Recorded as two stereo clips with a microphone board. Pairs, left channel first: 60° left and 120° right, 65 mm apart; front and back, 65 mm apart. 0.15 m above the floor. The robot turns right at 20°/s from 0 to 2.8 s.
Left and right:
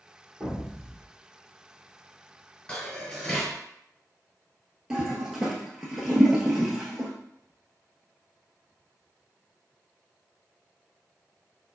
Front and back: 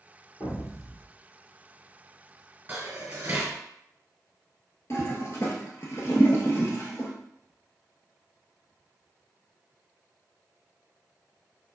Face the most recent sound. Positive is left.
turn(degrees=-40)